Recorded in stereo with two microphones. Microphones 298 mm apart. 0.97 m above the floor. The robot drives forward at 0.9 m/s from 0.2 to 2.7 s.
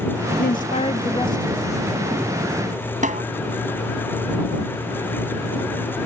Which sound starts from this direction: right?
A snare drum, at 3.0 s.